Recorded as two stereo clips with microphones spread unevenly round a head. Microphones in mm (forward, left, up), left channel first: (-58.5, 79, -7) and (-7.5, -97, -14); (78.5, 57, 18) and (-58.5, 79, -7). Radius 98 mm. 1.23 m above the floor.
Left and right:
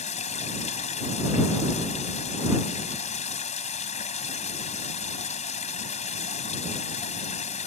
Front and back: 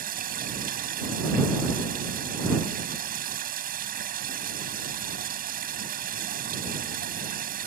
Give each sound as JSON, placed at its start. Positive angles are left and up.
{"t": 0.0, "sound": "running water", "azimuth_deg": 155}